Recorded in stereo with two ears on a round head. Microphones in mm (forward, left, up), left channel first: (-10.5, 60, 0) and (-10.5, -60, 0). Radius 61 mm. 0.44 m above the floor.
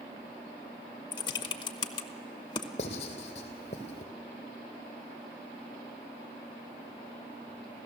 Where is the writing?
50° left (ahead or behind), 3 m.